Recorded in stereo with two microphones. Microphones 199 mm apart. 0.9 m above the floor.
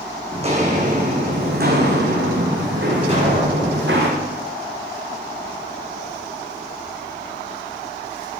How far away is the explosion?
About 3.5 m.